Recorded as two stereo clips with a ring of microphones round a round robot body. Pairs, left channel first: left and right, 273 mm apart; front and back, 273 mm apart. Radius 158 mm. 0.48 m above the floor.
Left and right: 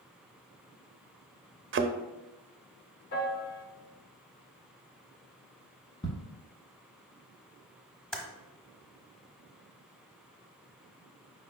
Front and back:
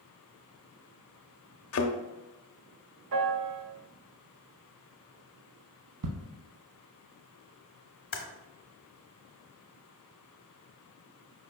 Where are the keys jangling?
No keys jangling in this recording.